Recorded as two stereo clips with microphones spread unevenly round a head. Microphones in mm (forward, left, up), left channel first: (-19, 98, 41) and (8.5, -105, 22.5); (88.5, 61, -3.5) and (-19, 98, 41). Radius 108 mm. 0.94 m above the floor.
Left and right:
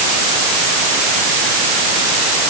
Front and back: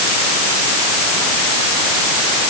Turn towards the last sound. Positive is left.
No sound to turn to.